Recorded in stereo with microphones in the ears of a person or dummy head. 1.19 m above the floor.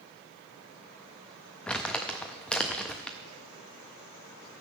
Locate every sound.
1.7 s crumpling: 5° left (ahead or behind), 0.5 m